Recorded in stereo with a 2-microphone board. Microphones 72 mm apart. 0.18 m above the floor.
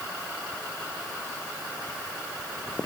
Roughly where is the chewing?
No chewing in this recording.